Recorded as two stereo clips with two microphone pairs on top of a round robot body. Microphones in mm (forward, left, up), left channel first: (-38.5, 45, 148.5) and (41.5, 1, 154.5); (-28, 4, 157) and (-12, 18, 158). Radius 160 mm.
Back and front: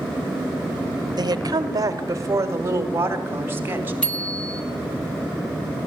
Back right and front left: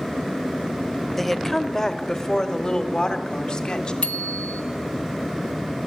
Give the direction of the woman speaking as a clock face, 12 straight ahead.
2 o'clock.